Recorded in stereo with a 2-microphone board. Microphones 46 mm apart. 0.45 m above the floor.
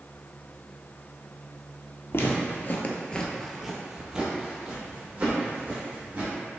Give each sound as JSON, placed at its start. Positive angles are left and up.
{"t": 2.1, "sound": "footsteps", "side_deg": 55, "distance_m": 0.6}